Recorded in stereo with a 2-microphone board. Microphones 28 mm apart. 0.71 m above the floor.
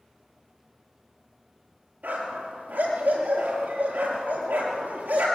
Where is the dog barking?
85° right, 6.5 m.